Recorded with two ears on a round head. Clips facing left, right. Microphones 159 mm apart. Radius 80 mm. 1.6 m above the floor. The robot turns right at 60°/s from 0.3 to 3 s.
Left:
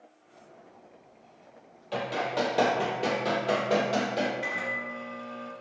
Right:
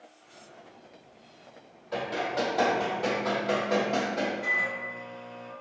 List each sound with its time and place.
1.9 s running footsteps: 40° left (ahead or behind), 2.0 m; by 4.3 s 45° left (ahead or behind), 2 m
4.4 s a microwave: 70° left (ahead or behind), 1.8 m